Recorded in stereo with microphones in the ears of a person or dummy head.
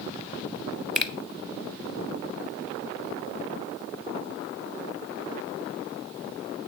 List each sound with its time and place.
0.9 s a finger snap: 5° left (ahead or behind), 0.6 m